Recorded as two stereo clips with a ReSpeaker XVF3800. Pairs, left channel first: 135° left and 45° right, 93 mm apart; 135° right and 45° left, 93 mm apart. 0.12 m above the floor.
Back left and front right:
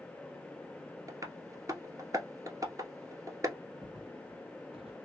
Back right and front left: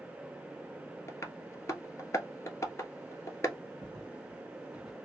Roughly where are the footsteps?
Ahead.